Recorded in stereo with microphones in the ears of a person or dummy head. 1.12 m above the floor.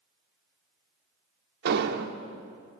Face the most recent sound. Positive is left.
turn(degrees=-65)  # may be behind; listen again after turning